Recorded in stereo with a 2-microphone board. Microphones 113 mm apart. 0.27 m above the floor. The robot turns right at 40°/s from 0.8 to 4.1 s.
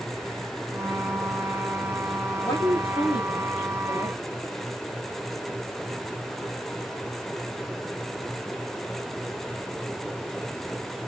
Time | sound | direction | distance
2.4 | a woman speaking | 40° left | 7 m